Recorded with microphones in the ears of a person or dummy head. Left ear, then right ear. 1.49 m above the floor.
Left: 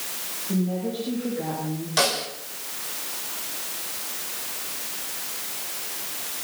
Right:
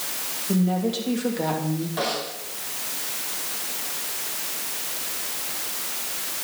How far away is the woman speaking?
About 3 m.